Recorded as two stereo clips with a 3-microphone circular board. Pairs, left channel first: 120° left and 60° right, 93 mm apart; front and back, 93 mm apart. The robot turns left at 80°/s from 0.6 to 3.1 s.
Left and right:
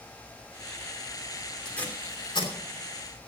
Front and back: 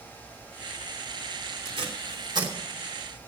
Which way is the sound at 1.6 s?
155° right.